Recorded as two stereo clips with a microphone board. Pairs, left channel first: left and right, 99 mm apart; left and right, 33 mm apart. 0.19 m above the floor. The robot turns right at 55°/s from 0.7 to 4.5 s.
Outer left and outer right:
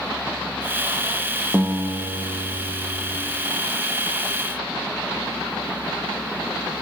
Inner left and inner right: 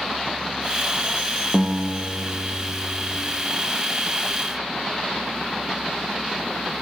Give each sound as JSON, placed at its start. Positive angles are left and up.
{"t": 1.5, "sound": "a guitar", "azimuth_deg": -10, "distance_m": 1.1}